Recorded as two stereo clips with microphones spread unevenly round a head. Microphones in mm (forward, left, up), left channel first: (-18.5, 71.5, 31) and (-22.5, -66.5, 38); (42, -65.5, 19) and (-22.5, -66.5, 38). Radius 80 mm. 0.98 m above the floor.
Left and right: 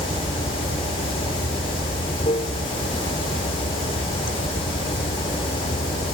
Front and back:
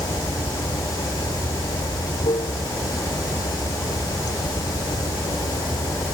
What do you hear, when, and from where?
0.0 s running water: 30° left